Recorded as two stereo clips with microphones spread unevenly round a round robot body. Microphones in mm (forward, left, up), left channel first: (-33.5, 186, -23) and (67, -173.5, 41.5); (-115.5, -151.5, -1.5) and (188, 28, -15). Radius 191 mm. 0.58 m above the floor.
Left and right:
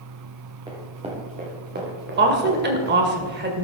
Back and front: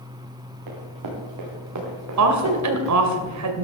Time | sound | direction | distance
0.7 | running footsteps | 5° left | 4 m
2.2 | a woman speaking | 10° right | 2 m